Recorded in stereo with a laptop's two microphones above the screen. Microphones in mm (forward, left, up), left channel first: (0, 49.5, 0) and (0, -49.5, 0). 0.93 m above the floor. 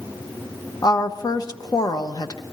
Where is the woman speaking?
40° left (ahead or behind), 0.9 m.